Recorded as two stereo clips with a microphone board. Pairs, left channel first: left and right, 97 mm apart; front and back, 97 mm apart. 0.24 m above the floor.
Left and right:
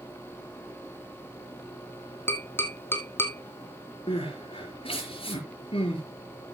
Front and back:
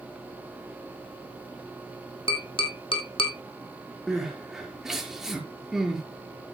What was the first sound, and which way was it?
Tapping, 25° left.